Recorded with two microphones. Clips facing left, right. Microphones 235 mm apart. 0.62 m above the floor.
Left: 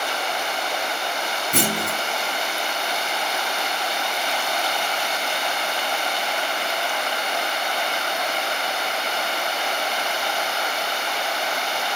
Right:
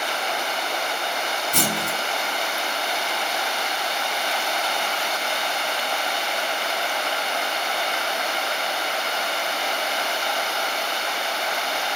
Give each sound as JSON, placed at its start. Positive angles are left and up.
{"t": 1.5, "sound": "a clunk", "side_deg": 65, "distance_m": 4.0}